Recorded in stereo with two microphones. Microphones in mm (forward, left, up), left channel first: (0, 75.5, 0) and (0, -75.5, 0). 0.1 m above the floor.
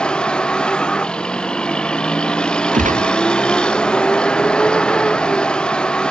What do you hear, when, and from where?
0.0 s a vehicle: 5° left (ahead or behind)
2.7 s a gunshot: 55° right (ahead or behind)